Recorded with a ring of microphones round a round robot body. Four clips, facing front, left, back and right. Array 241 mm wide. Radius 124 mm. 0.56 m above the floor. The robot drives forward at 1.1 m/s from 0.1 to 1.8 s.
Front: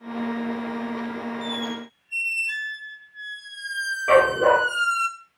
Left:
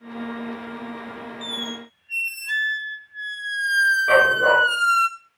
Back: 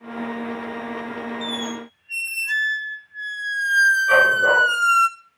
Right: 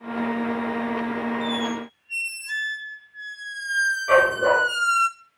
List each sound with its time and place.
1.4 s a squeak: 125° left, 0.6 m; by 5.1 s 150° left, 0.9 m
4.1 s a dog barking: 25° left, 6.5 m